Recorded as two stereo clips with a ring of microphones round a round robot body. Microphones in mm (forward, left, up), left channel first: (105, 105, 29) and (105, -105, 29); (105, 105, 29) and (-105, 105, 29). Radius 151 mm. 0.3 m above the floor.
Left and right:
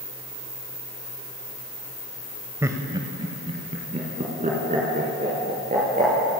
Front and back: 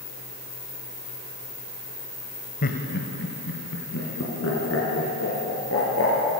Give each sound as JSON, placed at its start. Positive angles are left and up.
{"t": 2.6, "sound": "laughter", "azimuth_deg": -15, "distance_m": 1.5}